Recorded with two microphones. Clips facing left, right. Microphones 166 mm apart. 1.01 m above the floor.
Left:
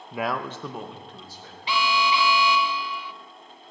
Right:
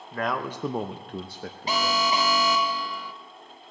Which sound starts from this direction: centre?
A man speaking, at 0.1 s.